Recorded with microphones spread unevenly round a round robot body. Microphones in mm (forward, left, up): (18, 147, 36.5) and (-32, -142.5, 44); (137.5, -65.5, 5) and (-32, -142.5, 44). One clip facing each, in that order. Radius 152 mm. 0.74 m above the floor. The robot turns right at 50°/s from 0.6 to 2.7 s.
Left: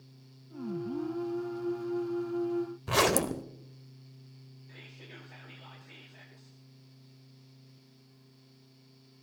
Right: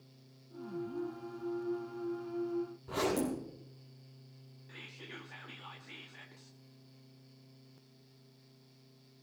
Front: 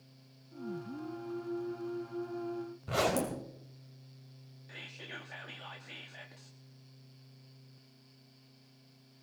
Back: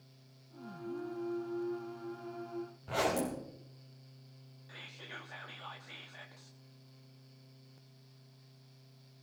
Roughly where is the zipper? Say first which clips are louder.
Left 4 dB, front 2 dB; left.